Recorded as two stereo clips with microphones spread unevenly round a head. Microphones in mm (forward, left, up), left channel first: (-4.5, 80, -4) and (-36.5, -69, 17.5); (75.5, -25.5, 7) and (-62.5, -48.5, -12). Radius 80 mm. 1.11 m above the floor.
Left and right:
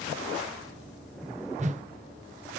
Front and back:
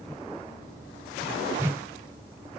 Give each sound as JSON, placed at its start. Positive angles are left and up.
{"t": 1.6, "sound": "a whoosh", "azimuth_deg": -115, "distance_m": 0.8}